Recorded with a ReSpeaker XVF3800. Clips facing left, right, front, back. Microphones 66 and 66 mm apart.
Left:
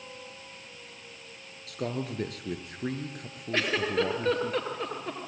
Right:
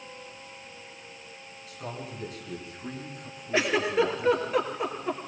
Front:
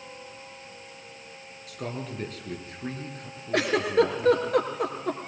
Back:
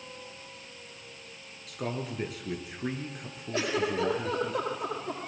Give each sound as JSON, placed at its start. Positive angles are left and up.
{"t": 1.7, "sound": "a man speaking", "azimuth_deg": 90, "distance_m": 3.0}
{"t": 3.5, "sound": "a giggle", "azimuth_deg": -10, "distance_m": 3.0}